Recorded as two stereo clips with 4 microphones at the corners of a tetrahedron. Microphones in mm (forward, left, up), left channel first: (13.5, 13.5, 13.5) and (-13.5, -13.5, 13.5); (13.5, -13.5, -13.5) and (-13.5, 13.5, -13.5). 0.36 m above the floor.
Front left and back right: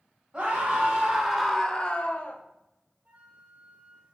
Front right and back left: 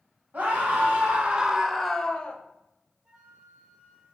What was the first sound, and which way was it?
A scream, 165° left.